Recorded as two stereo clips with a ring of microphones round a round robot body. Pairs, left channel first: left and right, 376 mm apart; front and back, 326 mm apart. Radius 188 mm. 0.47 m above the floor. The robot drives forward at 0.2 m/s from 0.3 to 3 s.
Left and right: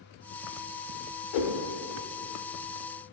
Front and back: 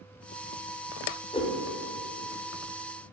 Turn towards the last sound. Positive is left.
turn(degrees=110)